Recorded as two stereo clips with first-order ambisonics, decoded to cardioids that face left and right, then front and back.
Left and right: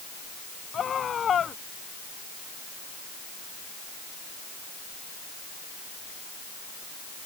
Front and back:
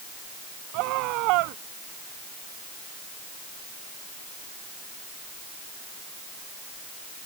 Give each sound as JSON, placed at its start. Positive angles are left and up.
{"t": 0.7, "sound": "a scream", "azimuth_deg": 155}